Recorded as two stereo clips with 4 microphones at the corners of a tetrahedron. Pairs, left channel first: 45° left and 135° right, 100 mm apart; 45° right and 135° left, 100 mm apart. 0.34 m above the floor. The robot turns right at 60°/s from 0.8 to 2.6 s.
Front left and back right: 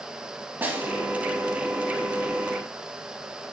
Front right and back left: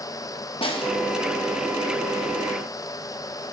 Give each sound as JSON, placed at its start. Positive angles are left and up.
{"t": 0.6, "sound": "a snare drum", "azimuth_deg": -65, "distance_m": 1.1}